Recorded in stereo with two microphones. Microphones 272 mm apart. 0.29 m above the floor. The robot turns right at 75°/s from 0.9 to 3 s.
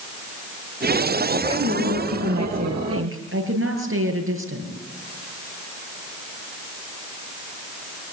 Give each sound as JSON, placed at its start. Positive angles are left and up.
{"t": 1.4, "sound": "a woman speaking", "azimuth_deg": -170, "distance_m": 6.5}